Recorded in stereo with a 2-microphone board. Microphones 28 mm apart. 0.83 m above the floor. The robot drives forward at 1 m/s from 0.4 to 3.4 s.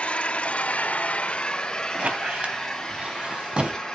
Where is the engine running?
45° left (ahead or behind), 0.8 m; by 4.0 s 15° left (ahead or behind), 2.5 m.